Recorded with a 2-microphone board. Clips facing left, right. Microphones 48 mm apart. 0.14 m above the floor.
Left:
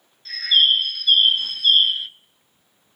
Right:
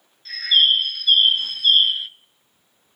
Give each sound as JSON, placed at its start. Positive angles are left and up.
{"t": 0.2, "sound": "a bird", "side_deg": -5, "distance_m": 1.1}